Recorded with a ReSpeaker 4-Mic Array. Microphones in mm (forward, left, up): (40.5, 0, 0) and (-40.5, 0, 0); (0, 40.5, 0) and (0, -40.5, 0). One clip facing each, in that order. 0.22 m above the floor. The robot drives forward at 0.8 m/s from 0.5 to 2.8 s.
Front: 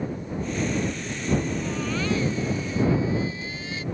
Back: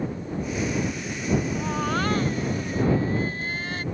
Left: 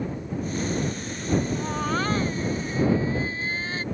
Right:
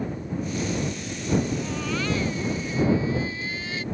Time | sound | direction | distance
1.6 | a baby crying | 135° left | ?